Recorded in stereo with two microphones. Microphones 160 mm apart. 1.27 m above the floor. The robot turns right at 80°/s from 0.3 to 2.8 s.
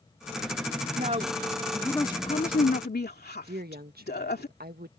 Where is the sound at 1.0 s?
60° right; by 4.5 s 85° left.